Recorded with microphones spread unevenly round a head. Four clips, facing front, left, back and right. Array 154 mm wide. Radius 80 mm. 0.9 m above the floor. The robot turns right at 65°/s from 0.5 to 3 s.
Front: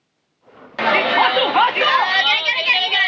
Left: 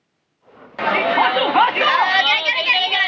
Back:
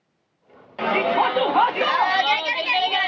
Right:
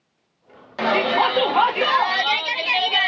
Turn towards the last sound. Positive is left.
turn(degrees=160)